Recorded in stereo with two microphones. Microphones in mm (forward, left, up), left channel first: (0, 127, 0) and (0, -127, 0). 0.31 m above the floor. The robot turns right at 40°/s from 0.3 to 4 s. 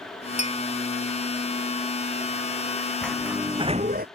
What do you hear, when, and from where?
0.4 s a clink: 75° left (ahead or behind); by 0.6 s 80° left
3.0 s a sliding door: 175° left; by 4.1 s 145° right